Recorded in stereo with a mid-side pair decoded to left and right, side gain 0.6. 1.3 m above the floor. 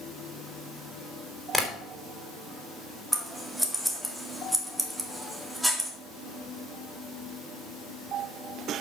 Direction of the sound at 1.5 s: 10° left.